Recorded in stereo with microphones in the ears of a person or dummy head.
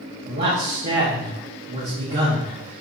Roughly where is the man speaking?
Right.